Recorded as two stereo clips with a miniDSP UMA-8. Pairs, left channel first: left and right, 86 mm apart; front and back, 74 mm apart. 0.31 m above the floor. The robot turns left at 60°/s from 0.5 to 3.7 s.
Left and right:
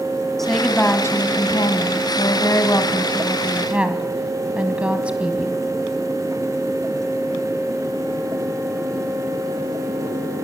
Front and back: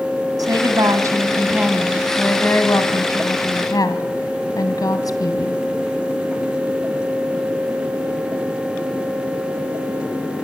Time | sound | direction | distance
0.4 | a woman speaking | 175° left | 1.7 m